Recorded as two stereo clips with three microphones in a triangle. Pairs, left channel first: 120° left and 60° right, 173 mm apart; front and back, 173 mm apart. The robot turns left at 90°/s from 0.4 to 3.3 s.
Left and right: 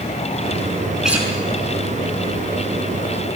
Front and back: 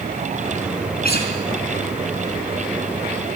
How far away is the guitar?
About 4.5 m.